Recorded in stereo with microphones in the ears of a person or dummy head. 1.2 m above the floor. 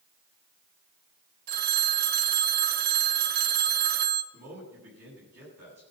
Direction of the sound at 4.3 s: 55° right (ahead or behind).